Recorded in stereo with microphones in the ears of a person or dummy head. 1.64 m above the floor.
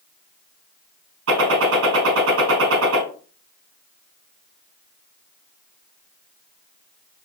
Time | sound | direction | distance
1.3 | a gunshot | 70° right (ahead or behind) | 5 m